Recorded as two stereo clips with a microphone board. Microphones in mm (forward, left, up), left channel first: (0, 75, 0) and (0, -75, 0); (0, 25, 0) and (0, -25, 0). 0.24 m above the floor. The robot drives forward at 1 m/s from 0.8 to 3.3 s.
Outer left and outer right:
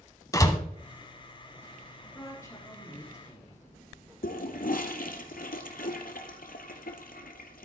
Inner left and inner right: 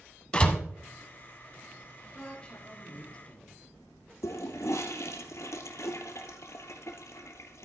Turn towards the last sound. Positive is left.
turn(degrees=70)  # may be behind; listen again after turning